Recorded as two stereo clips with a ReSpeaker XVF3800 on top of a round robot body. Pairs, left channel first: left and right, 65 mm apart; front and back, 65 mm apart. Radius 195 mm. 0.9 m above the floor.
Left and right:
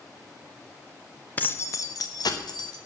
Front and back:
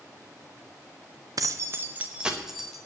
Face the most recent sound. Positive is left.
turn(degrees=90)